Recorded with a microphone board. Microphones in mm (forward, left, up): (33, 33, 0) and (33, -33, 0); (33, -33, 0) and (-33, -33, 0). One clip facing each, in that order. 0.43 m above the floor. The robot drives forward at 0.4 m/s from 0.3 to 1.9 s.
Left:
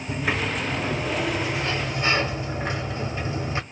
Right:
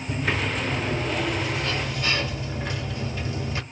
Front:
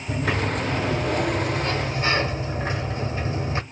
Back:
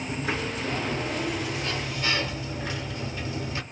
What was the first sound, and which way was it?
A sliding door, 15° left.